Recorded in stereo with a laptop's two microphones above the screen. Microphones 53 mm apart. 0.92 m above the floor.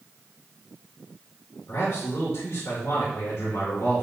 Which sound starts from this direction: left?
A man speaking, at 1.7 s.